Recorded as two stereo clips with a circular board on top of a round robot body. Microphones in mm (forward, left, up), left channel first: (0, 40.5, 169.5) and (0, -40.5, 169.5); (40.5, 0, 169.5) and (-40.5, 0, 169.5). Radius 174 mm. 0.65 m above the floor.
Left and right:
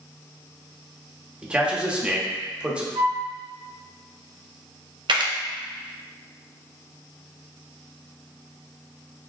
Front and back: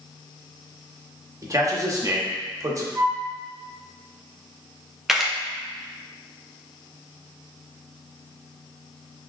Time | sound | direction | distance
1.4 | a man speaking | 160° right | 1.2 m
3.0 | a flute | 115° right | 1.1 m
5.1 | a camera shutter | 95° right | 0.8 m